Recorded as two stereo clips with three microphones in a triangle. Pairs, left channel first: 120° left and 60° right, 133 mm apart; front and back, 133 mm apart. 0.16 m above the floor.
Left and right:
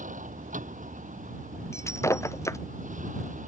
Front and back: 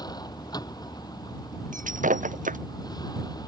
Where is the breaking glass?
170° right.